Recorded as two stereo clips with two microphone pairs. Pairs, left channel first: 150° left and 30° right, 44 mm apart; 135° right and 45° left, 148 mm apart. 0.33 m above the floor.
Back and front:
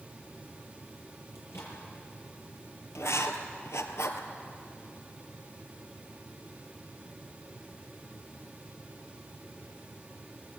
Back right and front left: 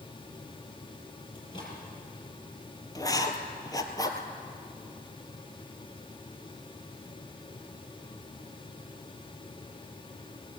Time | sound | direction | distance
1.4 | a microwave | 165° left | 7 m
3.0 | writing | 160° left | 2.0 m